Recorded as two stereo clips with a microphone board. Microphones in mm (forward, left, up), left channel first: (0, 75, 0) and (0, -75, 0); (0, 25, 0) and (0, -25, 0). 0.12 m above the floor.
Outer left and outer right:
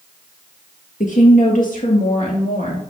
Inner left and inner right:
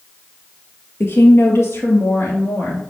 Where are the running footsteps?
I don't hear running footsteps.